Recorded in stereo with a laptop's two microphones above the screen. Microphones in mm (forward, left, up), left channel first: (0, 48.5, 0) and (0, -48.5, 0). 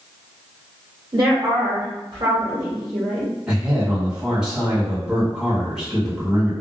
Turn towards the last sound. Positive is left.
turn(degrees=-10)  # may be behind; listen again after turning